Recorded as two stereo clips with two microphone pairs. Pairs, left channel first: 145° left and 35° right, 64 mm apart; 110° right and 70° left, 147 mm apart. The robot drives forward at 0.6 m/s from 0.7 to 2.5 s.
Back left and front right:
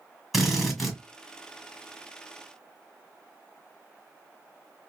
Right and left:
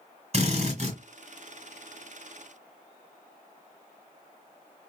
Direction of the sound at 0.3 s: 55° left.